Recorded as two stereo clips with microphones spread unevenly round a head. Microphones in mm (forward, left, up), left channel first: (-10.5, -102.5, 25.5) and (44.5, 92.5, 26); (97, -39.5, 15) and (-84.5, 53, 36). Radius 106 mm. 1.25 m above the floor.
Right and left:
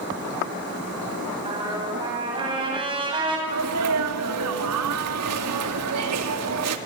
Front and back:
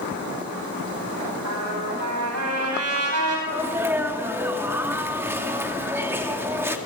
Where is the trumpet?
140° left, 8.5 m.